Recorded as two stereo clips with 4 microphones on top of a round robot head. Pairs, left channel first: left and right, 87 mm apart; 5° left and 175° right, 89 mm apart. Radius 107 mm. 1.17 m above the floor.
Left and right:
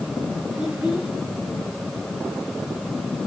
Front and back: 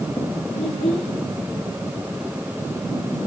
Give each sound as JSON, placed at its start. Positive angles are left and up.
{"t": 0.5, "sound": "a child speaking", "azimuth_deg": -10, "distance_m": 9.5}